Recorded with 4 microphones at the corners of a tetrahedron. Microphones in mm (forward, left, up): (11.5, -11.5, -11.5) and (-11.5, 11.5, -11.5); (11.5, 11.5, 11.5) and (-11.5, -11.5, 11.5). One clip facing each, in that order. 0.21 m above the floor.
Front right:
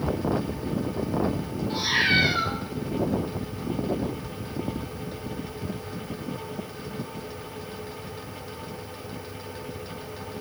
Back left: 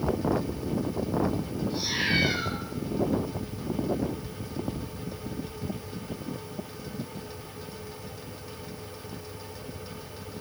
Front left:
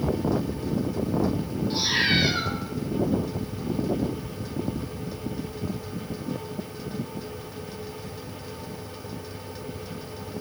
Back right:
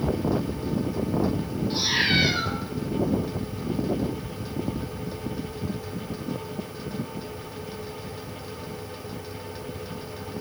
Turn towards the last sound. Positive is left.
turn(degrees=-45)